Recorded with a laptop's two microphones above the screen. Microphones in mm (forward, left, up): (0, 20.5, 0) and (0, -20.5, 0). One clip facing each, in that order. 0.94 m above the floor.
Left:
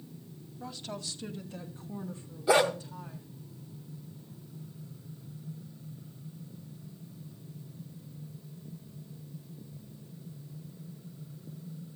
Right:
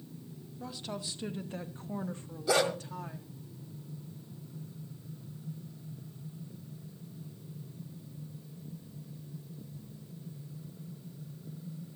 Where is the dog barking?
20° left (ahead or behind), 0.8 m.